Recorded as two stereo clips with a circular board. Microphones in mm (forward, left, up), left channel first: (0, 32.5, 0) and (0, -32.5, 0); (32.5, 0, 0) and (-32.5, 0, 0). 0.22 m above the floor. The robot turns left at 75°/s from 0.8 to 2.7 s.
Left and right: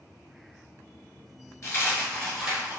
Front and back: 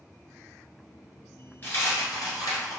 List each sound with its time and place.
1.6 s a dropped coin: 55° left, 1.5 m; by 2.8 s 25° right, 1.5 m